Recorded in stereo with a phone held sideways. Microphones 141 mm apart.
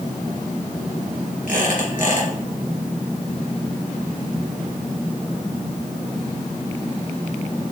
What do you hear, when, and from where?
1.5 s a squeak: 70° left (ahead or behind), 2.5 m